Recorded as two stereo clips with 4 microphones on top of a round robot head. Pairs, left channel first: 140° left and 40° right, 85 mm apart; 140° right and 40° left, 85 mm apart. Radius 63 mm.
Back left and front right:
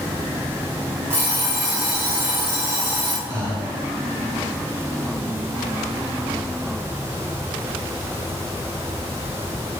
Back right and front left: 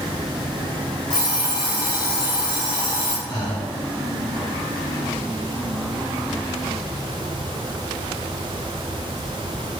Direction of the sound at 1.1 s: 105° right.